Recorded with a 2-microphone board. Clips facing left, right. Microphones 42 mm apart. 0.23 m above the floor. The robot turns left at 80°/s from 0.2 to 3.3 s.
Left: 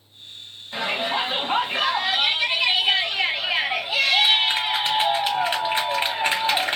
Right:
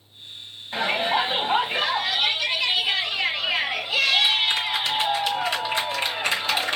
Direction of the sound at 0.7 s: 25° right (ahead or behind).